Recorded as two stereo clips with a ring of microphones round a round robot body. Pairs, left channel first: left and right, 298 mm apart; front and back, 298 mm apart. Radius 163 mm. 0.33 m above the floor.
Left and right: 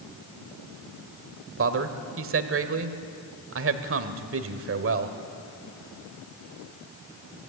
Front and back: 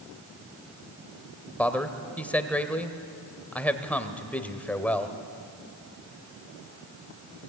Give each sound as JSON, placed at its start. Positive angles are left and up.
{"t": 1.6, "sound": "a man speaking", "azimuth_deg": -85, "distance_m": 1.3}